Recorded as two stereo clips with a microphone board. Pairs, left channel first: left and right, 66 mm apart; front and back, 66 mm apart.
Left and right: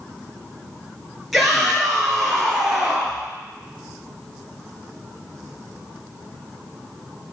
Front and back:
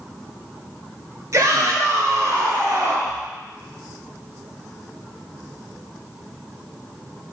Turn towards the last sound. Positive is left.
turn(degrees=180)